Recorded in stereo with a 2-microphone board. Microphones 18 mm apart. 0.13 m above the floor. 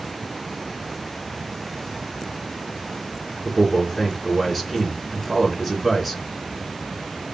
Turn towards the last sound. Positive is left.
turn(degrees=-5)  # may be behind; listen again after turning